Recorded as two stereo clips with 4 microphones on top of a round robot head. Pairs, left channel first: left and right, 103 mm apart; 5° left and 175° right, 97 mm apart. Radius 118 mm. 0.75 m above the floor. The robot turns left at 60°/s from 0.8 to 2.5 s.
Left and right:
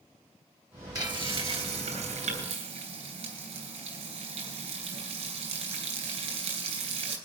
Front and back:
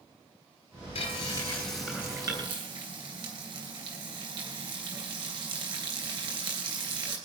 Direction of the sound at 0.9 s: 35° right.